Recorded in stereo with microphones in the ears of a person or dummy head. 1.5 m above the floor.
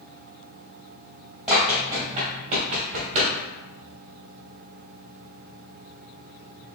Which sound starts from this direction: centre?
Running footsteps, at 1.5 s.